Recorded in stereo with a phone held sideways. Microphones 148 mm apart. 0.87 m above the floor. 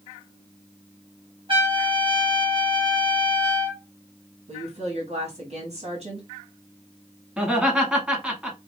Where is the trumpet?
40° right (ahead or behind), 1.8 m.